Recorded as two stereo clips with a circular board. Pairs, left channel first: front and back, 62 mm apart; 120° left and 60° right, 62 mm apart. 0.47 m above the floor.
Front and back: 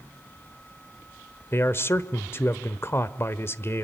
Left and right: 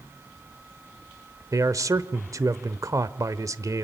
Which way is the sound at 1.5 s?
40° right.